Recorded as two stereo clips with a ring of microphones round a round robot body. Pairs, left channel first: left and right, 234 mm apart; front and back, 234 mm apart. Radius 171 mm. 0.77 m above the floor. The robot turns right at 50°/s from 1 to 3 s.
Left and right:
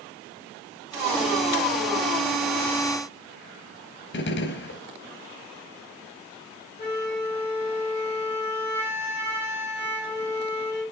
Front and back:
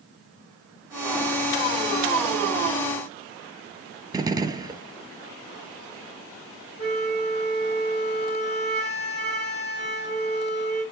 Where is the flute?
45° left, 4.5 m.